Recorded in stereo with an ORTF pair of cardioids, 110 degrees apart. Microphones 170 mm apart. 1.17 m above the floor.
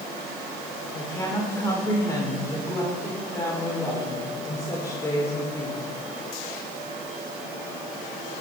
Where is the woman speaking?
20° left, 4 m.